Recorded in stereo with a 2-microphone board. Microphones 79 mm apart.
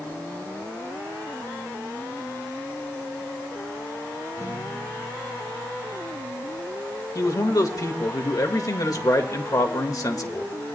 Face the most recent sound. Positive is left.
turn(degrees=50)  # may be behind; listen again after turning